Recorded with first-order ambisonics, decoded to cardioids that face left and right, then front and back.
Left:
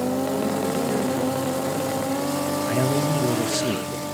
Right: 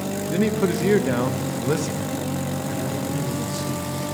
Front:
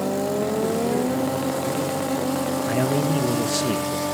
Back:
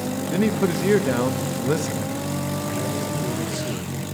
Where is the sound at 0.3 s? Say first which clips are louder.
Right 1 dB, even; 135° right, 1.0 m.